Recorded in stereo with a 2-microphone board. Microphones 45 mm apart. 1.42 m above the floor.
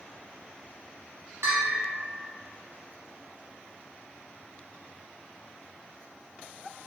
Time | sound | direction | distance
1.4 | a bell | 75° right (ahead or behind) | 0.9 m